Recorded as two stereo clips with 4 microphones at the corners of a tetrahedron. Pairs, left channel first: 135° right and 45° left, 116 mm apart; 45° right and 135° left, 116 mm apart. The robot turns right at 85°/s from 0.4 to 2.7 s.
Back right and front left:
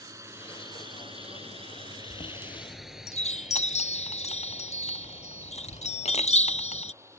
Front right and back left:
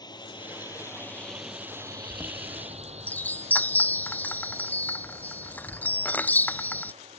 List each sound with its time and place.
0.0 s a drone: 5° right; by 7.2 s 110° left
2.1 s a chime: 170° right; by 6.9 s 120° right